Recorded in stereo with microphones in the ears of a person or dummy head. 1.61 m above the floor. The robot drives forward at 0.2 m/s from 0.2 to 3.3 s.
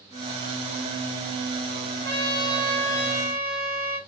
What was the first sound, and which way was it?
A trumpet, 15° left (ahead or behind).